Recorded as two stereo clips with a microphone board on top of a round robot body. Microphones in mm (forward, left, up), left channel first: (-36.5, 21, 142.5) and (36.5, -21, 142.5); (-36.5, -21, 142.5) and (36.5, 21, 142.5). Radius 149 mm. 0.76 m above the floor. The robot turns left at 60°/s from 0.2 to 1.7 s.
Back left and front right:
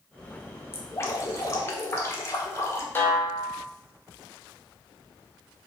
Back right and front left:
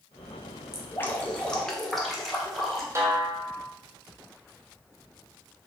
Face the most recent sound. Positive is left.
turn(degrees=85)